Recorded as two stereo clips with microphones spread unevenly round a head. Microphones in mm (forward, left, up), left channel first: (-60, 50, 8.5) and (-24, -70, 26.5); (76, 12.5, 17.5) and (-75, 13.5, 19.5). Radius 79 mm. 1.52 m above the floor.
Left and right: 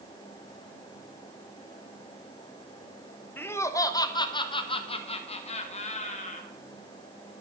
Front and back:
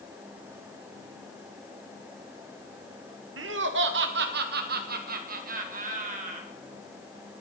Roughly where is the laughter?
Behind.